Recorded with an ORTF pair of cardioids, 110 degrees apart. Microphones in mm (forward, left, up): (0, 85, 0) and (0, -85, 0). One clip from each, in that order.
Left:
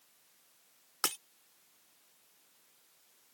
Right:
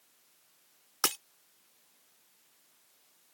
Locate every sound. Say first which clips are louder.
1.0 s breaking glass: right 4 dB; 20° right